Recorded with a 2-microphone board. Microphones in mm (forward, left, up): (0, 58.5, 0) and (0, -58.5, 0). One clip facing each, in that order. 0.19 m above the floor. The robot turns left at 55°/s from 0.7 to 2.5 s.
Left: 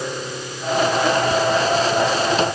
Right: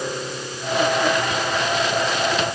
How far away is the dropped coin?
I don't hear a dropped coin.